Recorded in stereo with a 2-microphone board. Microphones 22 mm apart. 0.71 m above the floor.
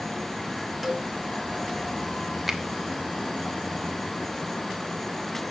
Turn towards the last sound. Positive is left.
turn(degrees=-10)  # may be behind; listen again after turning